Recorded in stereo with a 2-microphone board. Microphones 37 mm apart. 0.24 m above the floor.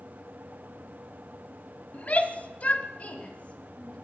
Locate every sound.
1.9 s a shout: 35° left (ahead or behind), 1.3 m; by 4.0 s 25° left (ahead or behind), 1.6 m